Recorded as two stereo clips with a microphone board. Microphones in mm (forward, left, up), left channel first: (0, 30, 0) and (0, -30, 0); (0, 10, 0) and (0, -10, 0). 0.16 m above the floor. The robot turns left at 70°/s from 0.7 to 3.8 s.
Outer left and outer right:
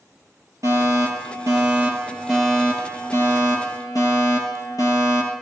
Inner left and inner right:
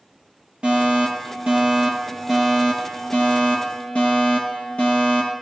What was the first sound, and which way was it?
A fire alarm, 60° right.